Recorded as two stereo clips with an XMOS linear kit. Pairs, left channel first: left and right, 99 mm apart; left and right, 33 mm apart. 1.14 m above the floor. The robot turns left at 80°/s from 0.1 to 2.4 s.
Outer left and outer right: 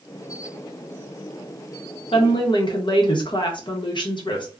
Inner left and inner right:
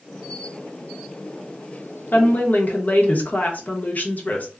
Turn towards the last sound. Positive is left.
turn(degrees=50)  # may be behind; listen again after turning